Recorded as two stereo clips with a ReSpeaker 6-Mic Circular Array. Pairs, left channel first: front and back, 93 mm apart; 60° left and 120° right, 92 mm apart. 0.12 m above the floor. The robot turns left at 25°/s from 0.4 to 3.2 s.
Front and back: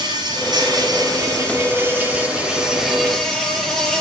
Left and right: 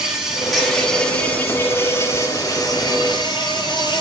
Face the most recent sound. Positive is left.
turn(degrees=85)